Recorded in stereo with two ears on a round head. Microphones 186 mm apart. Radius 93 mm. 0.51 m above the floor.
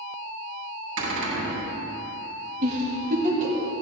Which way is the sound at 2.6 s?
40° right (ahead or behind).